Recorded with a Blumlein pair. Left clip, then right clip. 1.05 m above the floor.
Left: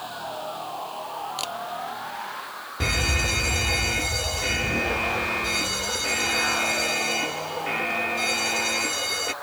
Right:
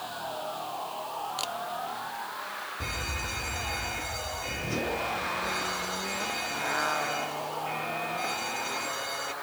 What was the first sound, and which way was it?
A machine running, 5° left.